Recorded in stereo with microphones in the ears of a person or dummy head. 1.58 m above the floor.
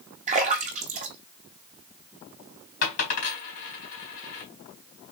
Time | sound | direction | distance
0.3 | a splash | 45° right (ahead or behind) | 0.8 m
2.8 | a dropped coin | 50° left (ahead or behind) | 1.7 m